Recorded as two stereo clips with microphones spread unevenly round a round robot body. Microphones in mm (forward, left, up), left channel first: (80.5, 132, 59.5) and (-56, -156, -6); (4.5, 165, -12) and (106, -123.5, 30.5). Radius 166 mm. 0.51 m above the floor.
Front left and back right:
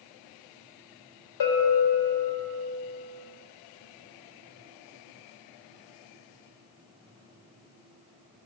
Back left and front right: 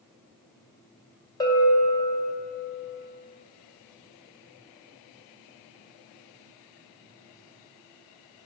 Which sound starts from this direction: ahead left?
A bell, at 1.4 s.